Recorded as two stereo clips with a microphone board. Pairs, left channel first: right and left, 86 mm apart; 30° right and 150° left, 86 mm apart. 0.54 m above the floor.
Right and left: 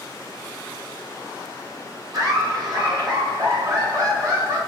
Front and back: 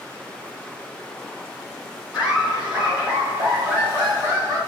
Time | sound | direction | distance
2.1 | laughter | 75° left | 2 m